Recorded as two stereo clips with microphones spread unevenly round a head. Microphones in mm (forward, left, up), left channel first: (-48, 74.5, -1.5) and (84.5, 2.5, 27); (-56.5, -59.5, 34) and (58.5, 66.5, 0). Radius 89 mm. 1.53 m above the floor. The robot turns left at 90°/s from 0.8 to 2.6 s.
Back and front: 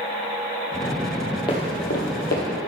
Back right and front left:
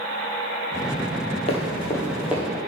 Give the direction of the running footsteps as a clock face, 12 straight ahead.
5 o'clock.